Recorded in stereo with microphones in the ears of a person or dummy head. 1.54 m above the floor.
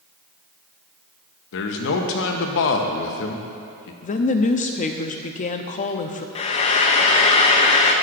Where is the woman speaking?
35° left (ahead or behind), 0.5 m.